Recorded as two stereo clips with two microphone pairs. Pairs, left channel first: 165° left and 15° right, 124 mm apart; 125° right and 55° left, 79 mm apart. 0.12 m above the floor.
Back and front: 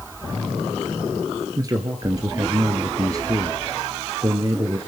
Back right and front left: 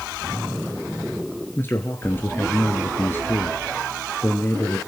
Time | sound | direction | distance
1.6 | a man speaking | 70° right | 1.9 m